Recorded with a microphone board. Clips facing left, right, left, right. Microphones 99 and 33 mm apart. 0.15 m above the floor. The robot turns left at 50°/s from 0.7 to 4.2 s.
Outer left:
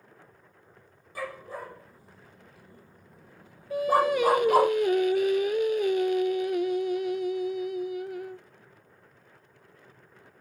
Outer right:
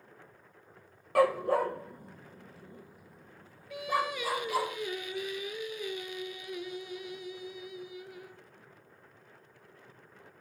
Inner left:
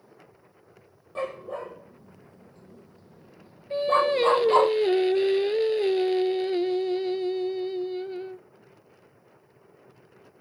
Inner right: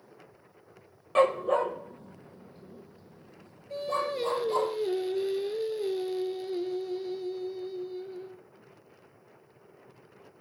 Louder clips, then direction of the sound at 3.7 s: Outer left 9 dB, inner left 9 dB; 40° left (ahead or behind).